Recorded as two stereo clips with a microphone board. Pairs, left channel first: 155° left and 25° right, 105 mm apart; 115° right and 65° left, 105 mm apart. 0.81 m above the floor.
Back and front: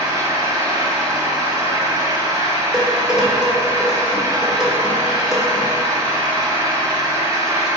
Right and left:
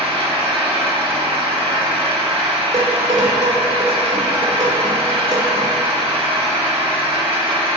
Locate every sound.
0.0 s an engine running: 35° left, 1.2 m
2.7 s dishes clattering: 60° left, 1.5 m